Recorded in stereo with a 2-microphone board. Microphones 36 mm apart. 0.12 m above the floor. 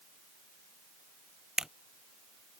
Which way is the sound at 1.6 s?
20° right (ahead or behind).